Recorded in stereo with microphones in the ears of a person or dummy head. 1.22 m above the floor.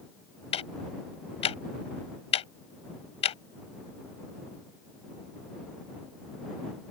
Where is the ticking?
35° left (ahead or behind).